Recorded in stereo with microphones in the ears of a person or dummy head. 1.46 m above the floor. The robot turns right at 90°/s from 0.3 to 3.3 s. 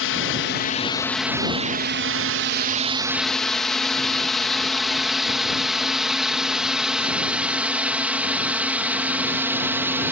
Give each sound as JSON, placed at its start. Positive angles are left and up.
{"t": 0.0, "sound": "a drone", "side_deg": 60}